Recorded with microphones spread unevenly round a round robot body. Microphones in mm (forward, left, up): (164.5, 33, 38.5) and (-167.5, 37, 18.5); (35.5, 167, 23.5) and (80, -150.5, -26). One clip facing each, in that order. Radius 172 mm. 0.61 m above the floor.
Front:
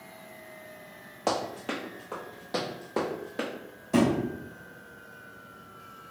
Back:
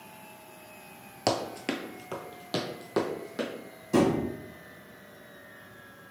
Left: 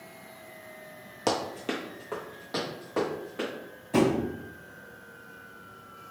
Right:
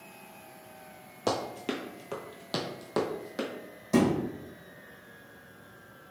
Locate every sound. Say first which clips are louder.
1.3 s running footsteps: back 1 dB, left 1 dB; 160° left, 0.7 m; by 3.5 s 115° right, 1.4 m
3.9 s a thud: even, left 1 dB; 100° right, 1.7 m